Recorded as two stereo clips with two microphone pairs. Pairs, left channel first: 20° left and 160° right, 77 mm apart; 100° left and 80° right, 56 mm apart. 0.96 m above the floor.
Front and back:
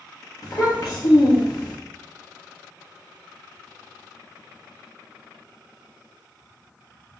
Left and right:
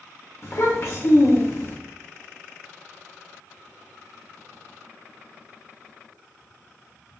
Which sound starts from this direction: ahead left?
A child speaking, at 0.4 s.